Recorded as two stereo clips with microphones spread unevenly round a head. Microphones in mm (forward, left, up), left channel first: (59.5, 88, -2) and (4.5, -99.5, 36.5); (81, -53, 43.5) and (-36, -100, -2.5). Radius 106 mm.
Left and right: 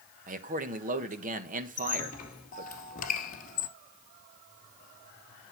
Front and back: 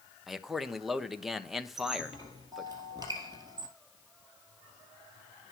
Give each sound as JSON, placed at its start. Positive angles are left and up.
{"t": 0.3, "sound": "a man speaking", "azimuth_deg": -65, "distance_m": 1.2}
{"t": 1.8, "sound": "a squeak", "azimuth_deg": 120, "distance_m": 1.8}